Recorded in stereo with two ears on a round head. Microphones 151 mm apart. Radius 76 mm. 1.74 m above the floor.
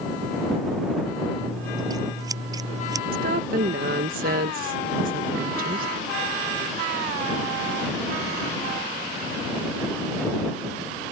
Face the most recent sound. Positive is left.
turn(degrees=-55)  # may be behind; listen again after turning